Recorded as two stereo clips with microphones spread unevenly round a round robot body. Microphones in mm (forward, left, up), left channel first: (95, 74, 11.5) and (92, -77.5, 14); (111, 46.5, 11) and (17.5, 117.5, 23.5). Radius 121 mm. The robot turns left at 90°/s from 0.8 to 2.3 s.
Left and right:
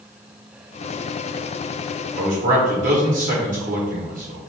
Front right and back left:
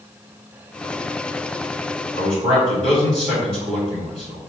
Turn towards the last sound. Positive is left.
turn(degrees=-120)